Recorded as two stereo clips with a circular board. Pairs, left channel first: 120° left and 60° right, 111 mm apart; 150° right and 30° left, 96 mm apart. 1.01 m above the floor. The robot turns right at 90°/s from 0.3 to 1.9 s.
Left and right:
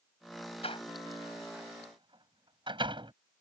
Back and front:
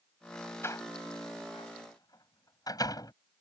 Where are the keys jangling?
No keys jangling in this recording.